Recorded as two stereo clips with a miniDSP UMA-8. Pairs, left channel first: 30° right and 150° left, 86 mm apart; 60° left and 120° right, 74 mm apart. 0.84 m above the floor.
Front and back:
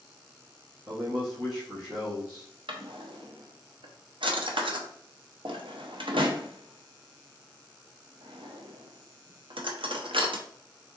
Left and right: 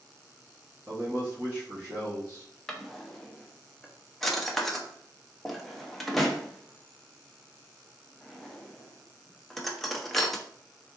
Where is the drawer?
145° left, 0.6 m.